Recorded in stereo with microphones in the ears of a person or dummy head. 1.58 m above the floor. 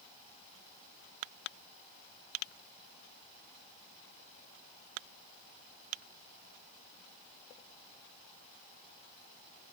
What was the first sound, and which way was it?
Only background noise.